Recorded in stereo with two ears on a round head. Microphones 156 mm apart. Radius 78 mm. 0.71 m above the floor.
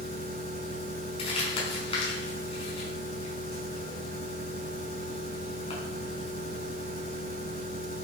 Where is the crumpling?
35° left (ahead or behind), 7 m.